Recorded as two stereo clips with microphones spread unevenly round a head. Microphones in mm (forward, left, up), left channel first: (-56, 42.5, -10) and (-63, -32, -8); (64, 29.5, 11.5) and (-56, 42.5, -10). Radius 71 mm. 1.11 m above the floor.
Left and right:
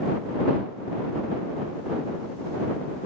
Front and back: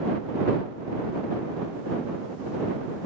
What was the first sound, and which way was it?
Only background noise.